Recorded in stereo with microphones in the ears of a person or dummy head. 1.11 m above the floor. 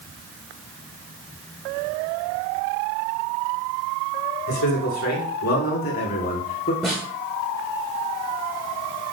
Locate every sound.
4.5 s a man speaking: 60° left (ahead or behind), 4.5 m; by 6.7 s 40° left (ahead or behind), 3.5 m
6.8 s a snare drum: centre (ahead or behind), 9 m